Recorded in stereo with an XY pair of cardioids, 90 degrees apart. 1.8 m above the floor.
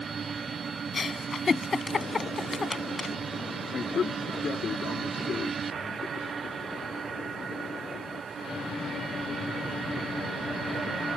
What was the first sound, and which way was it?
A giggle, 35° left.